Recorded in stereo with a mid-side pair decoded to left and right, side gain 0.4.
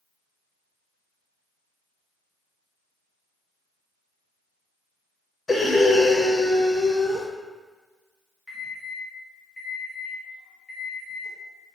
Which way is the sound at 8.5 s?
40° left.